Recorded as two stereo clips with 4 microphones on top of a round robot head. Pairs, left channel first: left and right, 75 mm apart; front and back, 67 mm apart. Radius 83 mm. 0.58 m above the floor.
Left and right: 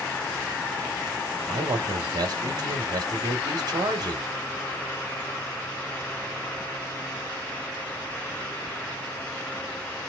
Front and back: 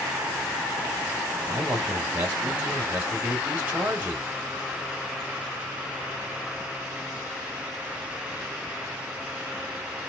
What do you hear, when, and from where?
1.5 s a man speaking: 105° right, 1.1 m